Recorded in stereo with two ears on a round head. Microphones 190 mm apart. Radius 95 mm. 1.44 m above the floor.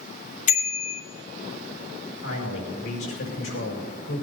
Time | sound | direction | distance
0.5 | a bicycle bell | 40° left (ahead or behind) | 2.5 m
2.2 | a man speaking | 75° left (ahead or behind) | 5.5 m